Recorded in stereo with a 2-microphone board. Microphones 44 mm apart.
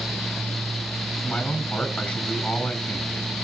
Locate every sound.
1.2 s a man speaking: 35° left (ahead or behind), 5.5 m